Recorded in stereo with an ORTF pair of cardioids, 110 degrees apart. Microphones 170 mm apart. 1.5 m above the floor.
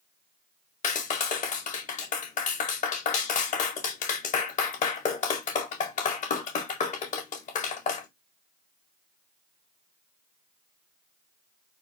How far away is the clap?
About 1.4 m.